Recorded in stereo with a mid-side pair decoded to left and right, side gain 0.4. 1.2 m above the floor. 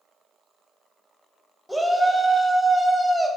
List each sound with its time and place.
1.7 s a shout: 5° left, 0.7 m